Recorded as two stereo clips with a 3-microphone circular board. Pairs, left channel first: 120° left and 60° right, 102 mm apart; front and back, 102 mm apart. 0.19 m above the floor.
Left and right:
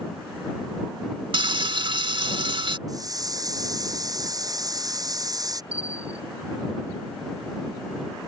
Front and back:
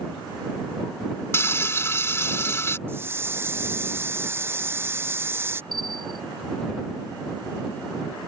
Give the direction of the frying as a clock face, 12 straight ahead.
2 o'clock.